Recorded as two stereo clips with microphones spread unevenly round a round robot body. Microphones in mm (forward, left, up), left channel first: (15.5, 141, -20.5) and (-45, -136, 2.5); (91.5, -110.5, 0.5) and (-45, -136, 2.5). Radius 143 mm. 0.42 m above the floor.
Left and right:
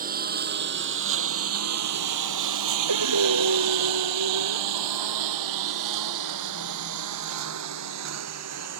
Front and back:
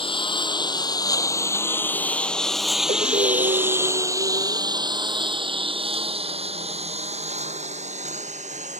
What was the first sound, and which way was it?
A lawn mower, 40° right.